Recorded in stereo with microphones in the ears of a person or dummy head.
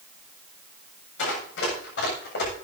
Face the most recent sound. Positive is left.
turn(degrees=65)  # may be behind; listen again after turning